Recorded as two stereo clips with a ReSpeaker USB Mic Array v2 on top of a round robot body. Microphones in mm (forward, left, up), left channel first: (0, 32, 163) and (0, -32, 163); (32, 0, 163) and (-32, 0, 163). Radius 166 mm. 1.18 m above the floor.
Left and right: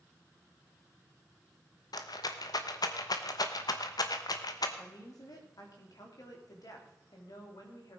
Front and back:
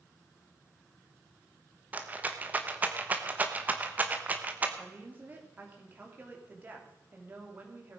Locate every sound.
1.9 s a rattle: 115° left, 1.0 m
4.8 s a woman speaking: 115° left, 3 m